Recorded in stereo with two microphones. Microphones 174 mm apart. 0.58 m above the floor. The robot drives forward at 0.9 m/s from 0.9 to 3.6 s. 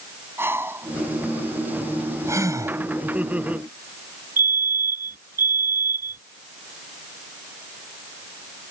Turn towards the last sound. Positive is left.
turn(degrees=-55)  # may be behind; listen again after turning